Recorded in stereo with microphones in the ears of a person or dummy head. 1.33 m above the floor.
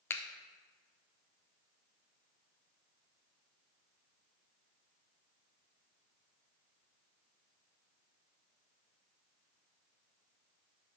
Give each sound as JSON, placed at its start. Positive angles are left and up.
{"t": 0.1, "sound": "a finger snap", "side_deg": 25, "distance_m": 0.6}